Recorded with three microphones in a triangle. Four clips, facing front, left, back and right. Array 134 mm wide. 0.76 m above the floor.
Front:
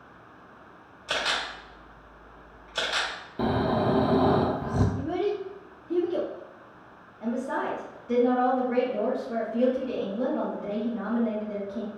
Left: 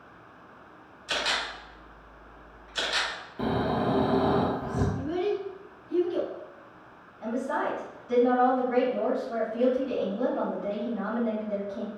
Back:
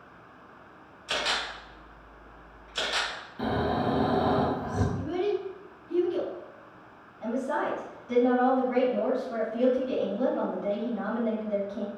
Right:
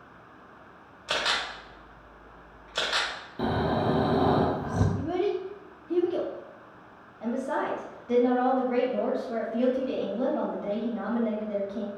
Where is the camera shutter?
60° right, 1.3 m.